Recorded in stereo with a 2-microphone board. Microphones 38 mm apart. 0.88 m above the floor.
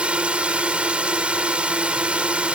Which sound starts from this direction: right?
A drone, at 0.0 s.